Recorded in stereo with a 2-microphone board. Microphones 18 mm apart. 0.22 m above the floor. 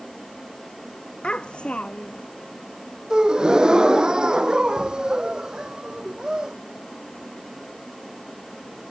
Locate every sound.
1.2 s a child speaking: 60° left (ahead or behind)
3.1 s a gasp: 40° right (ahead or behind)